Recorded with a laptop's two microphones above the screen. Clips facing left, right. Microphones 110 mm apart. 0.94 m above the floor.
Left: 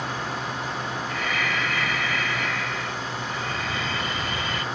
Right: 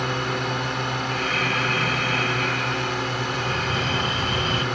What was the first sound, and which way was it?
A drone, 65° right (ahead or behind).